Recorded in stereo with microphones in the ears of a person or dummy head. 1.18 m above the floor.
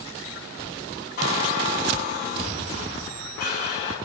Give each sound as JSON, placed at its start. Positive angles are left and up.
{"t": 1.2, "sound": "a squeak", "side_deg": 45, "distance_m": 7.5}